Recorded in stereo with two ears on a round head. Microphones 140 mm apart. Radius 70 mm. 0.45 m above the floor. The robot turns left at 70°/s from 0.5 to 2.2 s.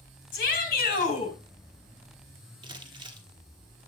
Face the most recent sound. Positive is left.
turn(degrees=-30)  # may be behind; listen again after turning